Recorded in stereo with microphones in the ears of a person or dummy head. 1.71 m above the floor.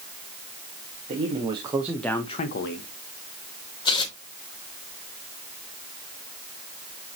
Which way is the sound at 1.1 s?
35° right (ahead or behind).